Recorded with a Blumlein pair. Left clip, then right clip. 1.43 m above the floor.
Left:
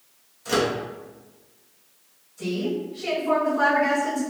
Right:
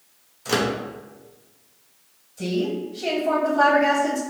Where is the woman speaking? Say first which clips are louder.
Right 2 dB; 60° right, 1.7 m.